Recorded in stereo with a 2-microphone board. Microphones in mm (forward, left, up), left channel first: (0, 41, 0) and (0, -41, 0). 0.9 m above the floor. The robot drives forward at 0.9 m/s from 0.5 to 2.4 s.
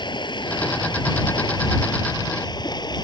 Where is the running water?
75° left (ahead or behind); by 3.0 s 65° left (ahead or behind).